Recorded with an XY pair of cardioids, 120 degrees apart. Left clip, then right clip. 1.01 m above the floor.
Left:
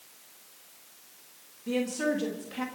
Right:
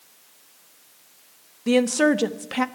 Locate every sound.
1.7 s a woman speaking: 70° right, 1.0 m